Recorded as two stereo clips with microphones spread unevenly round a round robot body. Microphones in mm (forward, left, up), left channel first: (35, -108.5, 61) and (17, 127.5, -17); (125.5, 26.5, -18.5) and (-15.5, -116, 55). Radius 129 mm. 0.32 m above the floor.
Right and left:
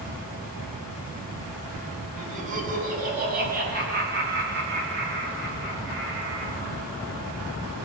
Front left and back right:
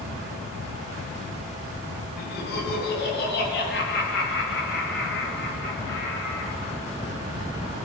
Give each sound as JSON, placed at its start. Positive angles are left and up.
{"t": 2.2, "sound": "laughter", "azimuth_deg": 50, "distance_m": 3.5}